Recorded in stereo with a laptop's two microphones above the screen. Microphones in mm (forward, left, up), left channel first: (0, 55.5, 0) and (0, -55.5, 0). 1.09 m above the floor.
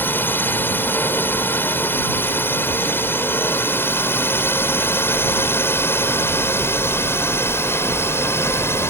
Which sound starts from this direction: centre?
A drone, at 0.0 s.